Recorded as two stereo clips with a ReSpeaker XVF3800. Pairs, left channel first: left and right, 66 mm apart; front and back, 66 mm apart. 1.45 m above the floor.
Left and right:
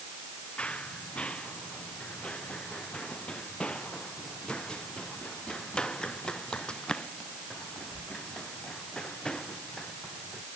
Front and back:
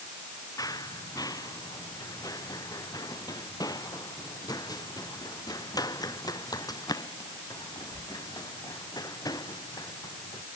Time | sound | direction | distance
0.6 | running footsteps | 20° left | ?